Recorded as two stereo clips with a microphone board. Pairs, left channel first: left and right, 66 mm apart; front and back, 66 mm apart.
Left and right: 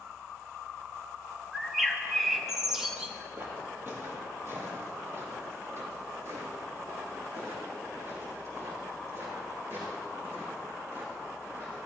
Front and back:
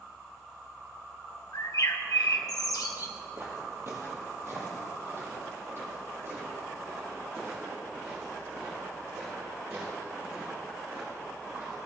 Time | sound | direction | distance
1.5 | a bird | 10° right | 0.9 m
3.4 | footsteps | 140° right | 2.0 m